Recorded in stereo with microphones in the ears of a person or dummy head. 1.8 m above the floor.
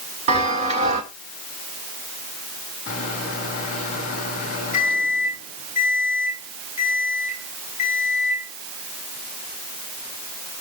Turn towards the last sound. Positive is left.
turn(degrees=45)  # may be behind; listen again after turning